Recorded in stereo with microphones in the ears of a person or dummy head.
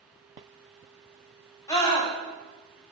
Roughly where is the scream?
Centre.